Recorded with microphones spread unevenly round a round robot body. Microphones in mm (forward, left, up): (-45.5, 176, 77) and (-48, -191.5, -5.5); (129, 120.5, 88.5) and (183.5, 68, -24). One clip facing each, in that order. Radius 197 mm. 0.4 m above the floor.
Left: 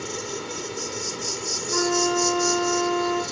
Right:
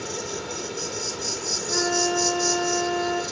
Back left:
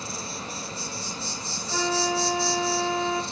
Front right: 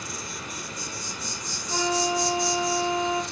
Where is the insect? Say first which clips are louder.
Even, back left 2 dB; 5° right, 1.7 m.